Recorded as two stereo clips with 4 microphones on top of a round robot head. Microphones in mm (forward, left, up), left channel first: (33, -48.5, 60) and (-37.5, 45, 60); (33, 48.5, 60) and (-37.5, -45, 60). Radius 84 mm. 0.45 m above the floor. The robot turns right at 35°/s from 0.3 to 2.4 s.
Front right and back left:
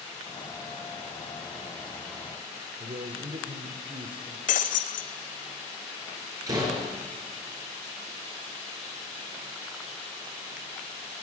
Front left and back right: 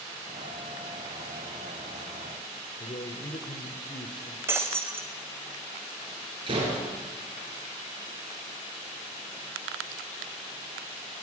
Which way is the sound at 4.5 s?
60° right.